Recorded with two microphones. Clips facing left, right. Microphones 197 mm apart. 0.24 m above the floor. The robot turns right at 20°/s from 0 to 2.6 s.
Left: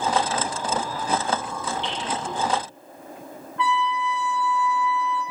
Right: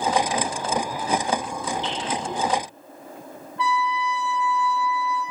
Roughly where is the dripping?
Left.